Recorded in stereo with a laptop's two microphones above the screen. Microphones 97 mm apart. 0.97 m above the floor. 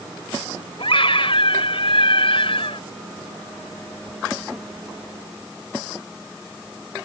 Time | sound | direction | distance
0.8 | a scream | 75° left (ahead or behind) | ?